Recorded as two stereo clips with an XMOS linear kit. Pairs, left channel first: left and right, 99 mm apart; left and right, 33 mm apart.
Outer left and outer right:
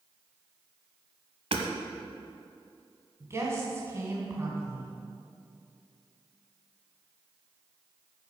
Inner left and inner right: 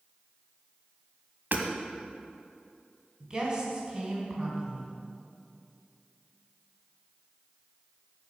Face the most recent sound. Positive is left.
turn(degrees=-25)  # may be behind; listen again after turning